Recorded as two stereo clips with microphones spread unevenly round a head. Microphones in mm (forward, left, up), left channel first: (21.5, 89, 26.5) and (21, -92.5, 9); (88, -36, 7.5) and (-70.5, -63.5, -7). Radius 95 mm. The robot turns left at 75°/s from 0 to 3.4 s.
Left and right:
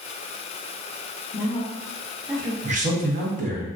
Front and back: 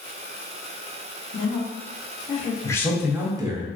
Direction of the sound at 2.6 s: 60° right.